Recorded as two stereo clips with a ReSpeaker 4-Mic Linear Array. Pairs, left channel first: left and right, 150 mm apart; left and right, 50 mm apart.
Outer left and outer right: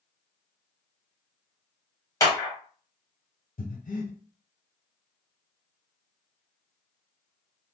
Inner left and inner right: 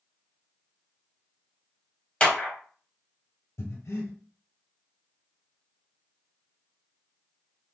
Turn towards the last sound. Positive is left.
turn(degrees=70)  # may be behind; listen again after turning